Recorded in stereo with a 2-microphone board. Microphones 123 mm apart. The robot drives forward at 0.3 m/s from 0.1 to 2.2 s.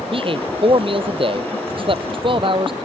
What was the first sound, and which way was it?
A man speaking, 45° right (ahead or behind).